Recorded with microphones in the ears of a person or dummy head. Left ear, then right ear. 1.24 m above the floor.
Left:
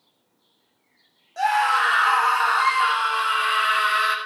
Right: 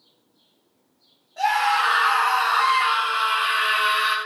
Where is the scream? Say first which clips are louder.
Even; 55° left (ahead or behind), 8.5 m; by 4.2 s 70° left (ahead or behind), 7 m.